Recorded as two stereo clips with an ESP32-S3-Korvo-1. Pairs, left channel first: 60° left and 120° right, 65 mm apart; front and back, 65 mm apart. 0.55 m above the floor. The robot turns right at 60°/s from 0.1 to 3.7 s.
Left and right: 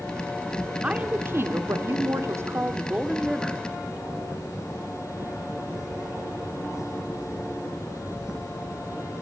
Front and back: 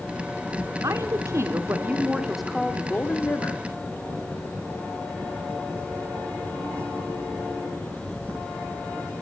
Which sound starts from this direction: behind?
A woman speaking, at 0.8 s.